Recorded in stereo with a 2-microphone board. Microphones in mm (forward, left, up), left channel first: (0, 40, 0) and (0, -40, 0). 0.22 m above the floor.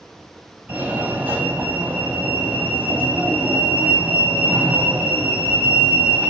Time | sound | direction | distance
0.7 | a fire alarm | 20° right (ahead or behind) | 1.9 m